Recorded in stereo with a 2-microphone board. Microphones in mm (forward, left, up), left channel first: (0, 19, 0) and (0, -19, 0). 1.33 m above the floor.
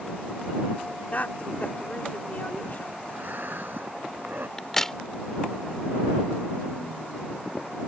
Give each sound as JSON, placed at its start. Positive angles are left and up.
{"t": 1.1, "sound": "a woman speaking", "side_deg": 45}
{"t": 3.1, "sound": "breathing", "side_deg": -60}
{"t": 4.6, "sound": "a crack", "side_deg": 10}